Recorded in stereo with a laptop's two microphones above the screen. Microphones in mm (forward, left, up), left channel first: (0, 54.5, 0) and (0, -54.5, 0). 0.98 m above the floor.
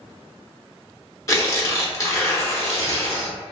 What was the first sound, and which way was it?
Tearing paper, 30° left (ahead or behind).